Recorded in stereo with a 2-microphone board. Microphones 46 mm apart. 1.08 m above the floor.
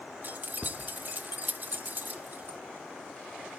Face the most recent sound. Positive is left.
turn(degrees=-45)  # may be behind; listen again after turning